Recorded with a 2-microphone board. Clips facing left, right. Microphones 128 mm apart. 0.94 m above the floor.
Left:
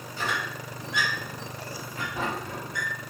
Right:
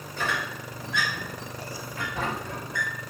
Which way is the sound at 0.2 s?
20° left (ahead or behind).